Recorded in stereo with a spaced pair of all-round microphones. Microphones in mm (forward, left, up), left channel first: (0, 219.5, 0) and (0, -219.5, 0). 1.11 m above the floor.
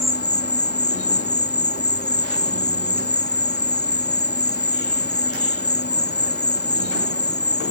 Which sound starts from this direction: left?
An insect, at 0.0 s.